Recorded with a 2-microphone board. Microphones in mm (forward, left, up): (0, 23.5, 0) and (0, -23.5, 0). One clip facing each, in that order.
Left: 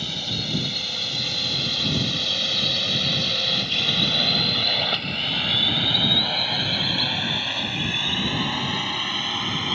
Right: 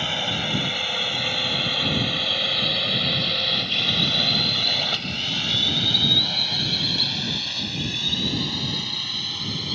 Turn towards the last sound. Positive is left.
turn(degrees=40)  # may be behind; listen again after turning